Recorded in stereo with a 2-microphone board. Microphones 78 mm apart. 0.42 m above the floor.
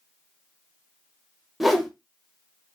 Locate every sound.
1.6 s a whoosh: 5° right (ahead or behind), 0.7 m